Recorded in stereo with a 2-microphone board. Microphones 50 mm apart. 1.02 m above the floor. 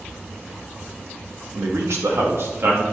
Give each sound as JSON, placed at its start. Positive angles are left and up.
{"t": 1.6, "sound": "a man speaking", "side_deg": -65, "distance_m": 2.0}